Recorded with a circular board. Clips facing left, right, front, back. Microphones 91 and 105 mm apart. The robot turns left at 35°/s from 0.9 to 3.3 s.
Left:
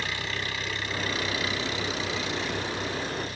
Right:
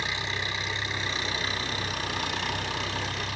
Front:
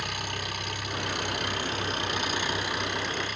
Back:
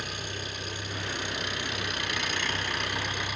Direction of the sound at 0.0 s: 20° right.